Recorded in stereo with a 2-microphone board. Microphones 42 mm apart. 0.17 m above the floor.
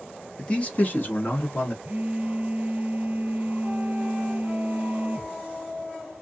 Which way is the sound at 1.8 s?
30° right (ahead or behind).